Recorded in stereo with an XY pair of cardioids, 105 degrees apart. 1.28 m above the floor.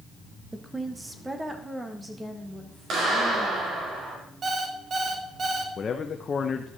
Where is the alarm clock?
45° right, 1.6 m.